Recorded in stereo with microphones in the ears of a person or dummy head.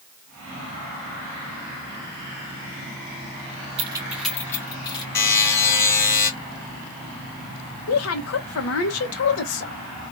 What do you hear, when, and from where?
3.8 s keys jangling: 35° right (ahead or behind), 0.9 m; by 5.0 s 25° left (ahead or behind), 2 m
5.2 s a buzzer: 15° left (ahead or behind), 2.5 m
7.9 s a woman speaking: 85° left, 0.8 m